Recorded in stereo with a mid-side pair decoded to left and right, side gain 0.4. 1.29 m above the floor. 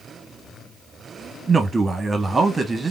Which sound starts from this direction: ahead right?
A man speaking, at 1.5 s.